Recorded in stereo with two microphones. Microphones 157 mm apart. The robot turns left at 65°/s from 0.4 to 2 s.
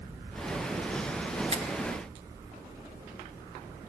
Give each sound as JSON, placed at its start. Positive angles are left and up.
{"t": 1.5, "sound": "a finger snap", "side_deg": -40, "distance_m": 3.5}